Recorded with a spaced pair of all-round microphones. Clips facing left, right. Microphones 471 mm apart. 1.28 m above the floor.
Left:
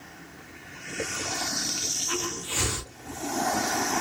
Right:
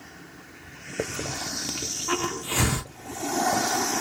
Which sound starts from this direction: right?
A hiss, at 1.0 s.